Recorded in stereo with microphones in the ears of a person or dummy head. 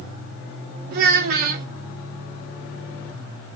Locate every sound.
0.9 s a child speaking: 50° right (ahead or behind), 1.0 m